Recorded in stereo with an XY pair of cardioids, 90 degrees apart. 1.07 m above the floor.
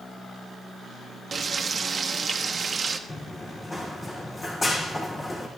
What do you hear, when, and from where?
1.3 s frying: 45° right, 0.8 m
3.1 s running footsteps: 30° left, 3.5 m